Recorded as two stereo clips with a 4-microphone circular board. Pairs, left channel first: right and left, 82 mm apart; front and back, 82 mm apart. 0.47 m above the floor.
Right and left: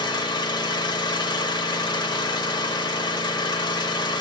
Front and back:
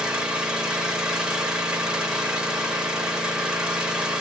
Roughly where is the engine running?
Right.